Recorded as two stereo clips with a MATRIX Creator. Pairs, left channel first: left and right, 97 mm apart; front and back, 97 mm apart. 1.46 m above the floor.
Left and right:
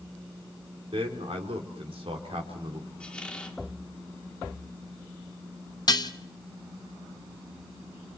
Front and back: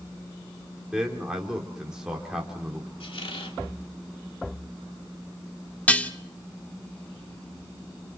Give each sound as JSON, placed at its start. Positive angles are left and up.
{"t": 0.9, "sound": "a man speaking", "azimuth_deg": -95, "distance_m": 4.0}
{"t": 3.0, "sound": "a squeak", "azimuth_deg": 10, "distance_m": 1.9}
{"t": 5.9, "sound": "dishes clattering", "azimuth_deg": 70, "distance_m": 1.0}